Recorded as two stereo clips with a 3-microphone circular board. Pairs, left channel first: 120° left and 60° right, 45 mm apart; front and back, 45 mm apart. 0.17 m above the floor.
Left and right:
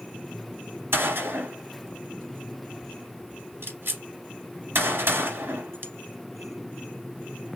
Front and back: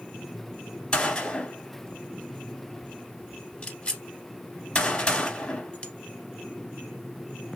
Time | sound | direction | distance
0.9 | a gunshot | 65° right | 1.2 m